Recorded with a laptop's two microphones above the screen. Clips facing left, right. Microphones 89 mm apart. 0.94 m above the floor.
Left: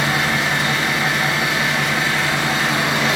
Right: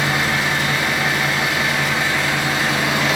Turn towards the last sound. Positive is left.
turn(degrees=75)  # may be behind; listen again after turning